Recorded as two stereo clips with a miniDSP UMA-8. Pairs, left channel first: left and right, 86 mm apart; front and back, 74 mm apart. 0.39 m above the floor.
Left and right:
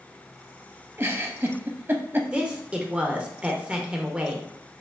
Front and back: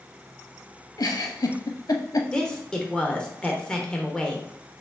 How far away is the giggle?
About 0.5 m.